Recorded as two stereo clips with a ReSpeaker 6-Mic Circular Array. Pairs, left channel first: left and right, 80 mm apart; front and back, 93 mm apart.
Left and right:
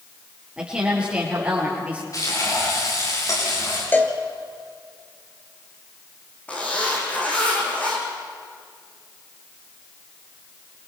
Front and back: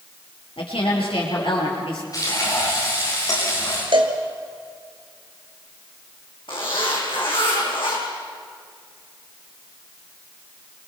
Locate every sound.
0.6 s a woman speaking: 10° right, 7 m; by 2.0 s 15° right, 6.5 m
2.1 s frying: 45° left, 8.5 m
3.9 s a cowbell: 155° left, 1.9 m
6.5 s a zipper: 20° left, 6 m